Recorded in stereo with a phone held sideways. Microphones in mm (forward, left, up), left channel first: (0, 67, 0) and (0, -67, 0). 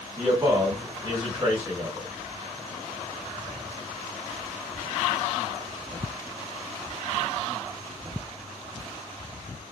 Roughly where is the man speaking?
Right.